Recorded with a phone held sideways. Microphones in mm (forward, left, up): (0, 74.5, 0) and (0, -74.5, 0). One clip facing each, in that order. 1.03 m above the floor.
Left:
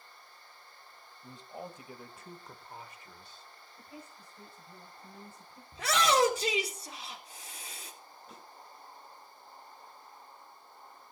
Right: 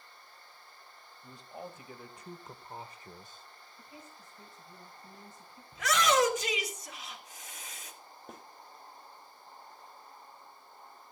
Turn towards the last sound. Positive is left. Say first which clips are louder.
# right 5 dB
turn(degrees=-50)  # may be behind; listen again after turning